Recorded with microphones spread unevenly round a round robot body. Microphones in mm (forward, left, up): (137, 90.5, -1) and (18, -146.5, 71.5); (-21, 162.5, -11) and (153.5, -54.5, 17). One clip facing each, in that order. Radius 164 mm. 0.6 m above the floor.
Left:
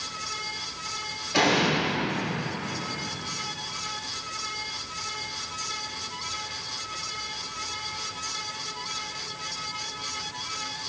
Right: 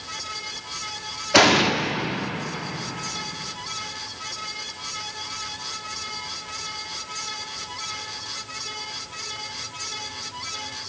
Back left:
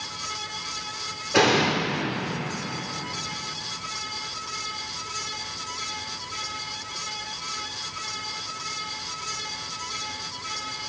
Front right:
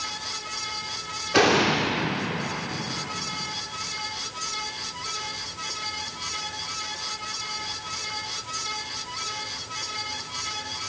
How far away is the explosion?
About 1.3 m.